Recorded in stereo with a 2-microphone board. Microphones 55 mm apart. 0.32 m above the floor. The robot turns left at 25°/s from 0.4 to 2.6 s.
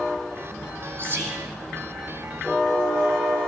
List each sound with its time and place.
1.0 s whispering: 45° right (ahead or behind), 2.5 m; by 1.5 s 35° right (ahead or behind), 2.5 m